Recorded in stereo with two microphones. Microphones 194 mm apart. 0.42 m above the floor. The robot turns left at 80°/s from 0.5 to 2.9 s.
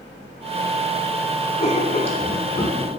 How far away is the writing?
About 0.7 m.